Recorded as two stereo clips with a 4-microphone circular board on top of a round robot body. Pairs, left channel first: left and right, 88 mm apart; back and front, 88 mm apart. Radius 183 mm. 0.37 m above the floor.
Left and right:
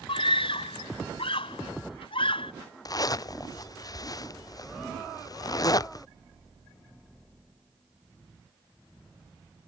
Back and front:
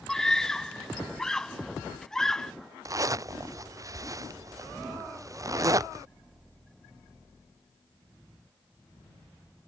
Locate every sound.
0.1 s a scream: 95° left
2.9 s a zipper: 50° left